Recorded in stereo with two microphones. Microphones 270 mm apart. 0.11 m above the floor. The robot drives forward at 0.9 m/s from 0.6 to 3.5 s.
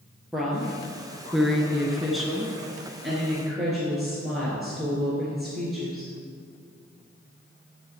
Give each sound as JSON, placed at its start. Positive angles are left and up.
{"t": 0.3, "sound": "a woman speaking", "side_deg": 0, "distance_m": 1.9}